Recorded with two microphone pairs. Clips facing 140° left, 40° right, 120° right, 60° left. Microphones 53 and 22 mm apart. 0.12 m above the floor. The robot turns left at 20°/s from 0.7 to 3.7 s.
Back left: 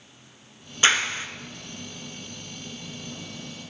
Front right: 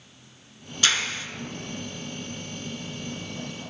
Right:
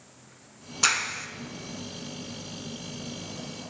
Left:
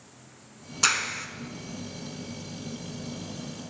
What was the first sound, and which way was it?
A clap, 135° left.